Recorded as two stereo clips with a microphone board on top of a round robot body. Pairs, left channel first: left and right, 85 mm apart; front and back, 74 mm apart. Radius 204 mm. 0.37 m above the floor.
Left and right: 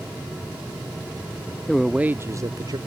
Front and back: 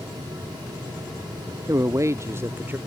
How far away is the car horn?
I don't hear a car horn.